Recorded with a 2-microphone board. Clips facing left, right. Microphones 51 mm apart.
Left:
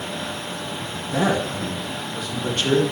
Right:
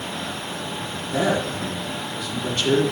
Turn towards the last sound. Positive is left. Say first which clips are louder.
# left 1 dB
turn(degrees=45)  # may be behind; listen again after turning